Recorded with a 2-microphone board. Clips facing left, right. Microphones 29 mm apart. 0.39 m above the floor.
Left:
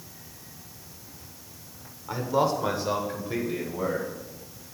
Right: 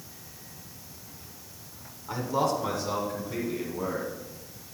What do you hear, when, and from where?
2.1 s a man speaking: 10° left (ahead or behind), 1.2 m; by 4.1 s 55° left (ahead or behind), 2 m